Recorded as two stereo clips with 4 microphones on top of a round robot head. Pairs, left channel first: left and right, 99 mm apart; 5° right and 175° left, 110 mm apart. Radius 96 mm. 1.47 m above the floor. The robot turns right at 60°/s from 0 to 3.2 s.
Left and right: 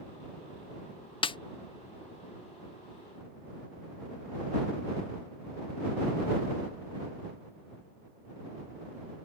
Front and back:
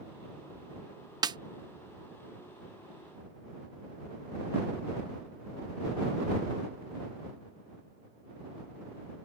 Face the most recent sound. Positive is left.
turn(degrees=-120)